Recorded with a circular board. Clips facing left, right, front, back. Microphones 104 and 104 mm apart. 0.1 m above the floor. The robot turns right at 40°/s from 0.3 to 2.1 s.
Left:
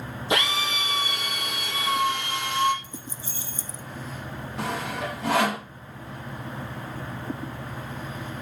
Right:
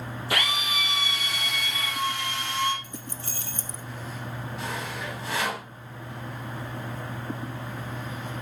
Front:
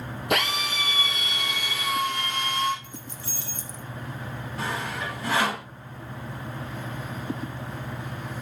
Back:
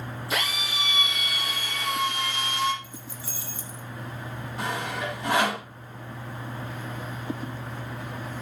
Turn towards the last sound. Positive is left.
turn(degrees=110)